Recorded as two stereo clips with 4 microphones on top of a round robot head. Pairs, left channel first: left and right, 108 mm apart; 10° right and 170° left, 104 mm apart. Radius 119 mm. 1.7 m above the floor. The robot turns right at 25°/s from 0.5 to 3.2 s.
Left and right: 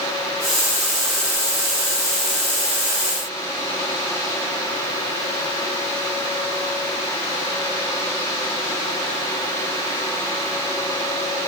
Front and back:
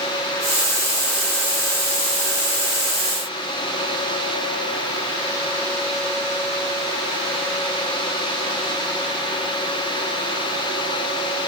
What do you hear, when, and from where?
Only background noise.